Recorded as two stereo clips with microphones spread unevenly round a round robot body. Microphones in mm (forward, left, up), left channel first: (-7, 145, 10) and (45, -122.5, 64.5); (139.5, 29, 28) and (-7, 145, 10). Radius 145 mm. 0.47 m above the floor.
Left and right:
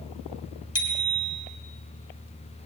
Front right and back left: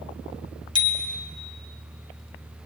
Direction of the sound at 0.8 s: 30° left.